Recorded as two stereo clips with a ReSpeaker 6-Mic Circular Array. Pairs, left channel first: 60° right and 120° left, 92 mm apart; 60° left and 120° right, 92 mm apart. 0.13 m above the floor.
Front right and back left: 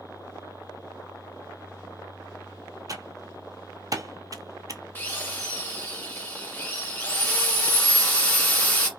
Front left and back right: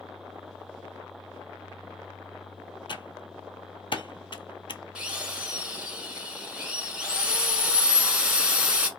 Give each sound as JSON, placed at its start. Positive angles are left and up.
{"t": 2.9, "sound": "typing on a keyboard", "azimuth_deg": 75, "distance_m": 0.5}
{"t": 5.0, "sound": "a drill", "azimuth_deg": -60, "distance_m": 1.2}